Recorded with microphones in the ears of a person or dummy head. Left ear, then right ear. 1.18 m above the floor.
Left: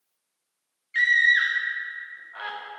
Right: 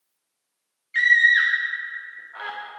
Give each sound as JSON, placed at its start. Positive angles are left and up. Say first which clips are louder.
{"t": 0.9, "sound": "a scream", "louder": "right 3 dB", "side_deg": 5, "distance_m": 0.7}